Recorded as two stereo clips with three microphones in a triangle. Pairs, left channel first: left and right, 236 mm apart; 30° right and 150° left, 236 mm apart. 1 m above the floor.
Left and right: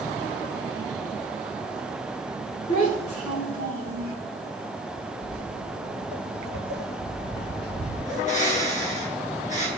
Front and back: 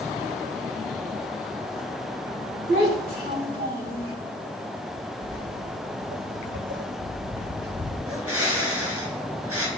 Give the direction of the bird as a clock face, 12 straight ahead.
7 o'clock.